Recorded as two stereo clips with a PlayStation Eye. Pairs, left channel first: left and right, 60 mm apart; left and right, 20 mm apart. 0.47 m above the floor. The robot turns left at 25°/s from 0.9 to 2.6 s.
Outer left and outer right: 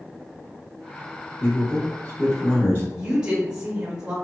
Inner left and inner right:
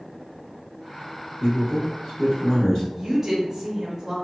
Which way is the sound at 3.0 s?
15° right (ahead or behind).